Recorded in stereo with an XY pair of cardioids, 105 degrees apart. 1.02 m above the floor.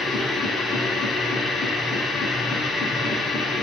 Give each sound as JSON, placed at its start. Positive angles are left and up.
{"t": 0.0, "sound": "a machine running", "azimuth_deg": 70, "distance_m": 1.9}